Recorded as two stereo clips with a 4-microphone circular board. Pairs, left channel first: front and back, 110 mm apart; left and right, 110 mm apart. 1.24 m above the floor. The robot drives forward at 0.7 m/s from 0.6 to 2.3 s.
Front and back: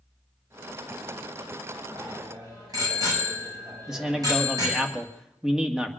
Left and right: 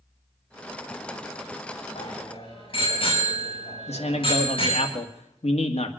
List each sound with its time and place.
1.9 s a bicycle bell: 120° left, 6 m; by 4.9 s 125° left, 6.5 m
3.9 s a man speaking: 95° left, 1.9 m